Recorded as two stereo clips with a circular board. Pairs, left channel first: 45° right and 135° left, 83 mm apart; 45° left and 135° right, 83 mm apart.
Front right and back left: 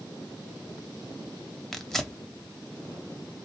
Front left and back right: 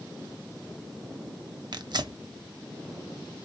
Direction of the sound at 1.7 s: 130° right.